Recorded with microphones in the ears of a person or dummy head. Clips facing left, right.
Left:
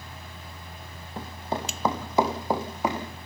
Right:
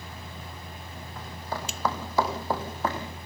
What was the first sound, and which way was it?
Running footsteps, 25° left (ahead or behind).